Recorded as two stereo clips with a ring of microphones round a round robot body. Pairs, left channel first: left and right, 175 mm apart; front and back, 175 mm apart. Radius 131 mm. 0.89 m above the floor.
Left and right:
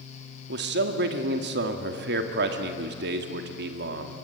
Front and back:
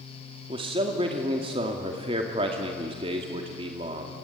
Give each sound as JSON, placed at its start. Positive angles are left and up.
{"t": 0.5, "sound": "a man speaking", "azimuth_deg": -115, "distance_m": 2.0}